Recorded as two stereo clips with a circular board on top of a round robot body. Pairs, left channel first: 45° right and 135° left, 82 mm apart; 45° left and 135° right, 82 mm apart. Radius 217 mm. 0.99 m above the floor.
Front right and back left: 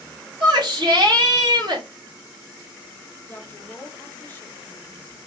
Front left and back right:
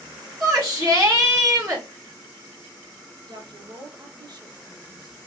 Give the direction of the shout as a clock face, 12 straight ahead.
7 o'clock.